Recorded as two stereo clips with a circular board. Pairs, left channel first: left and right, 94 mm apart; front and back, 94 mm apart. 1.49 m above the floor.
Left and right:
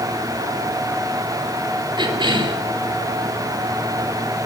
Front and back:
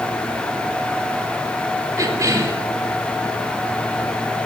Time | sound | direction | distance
2.0 | a cough | 125° right | 3 m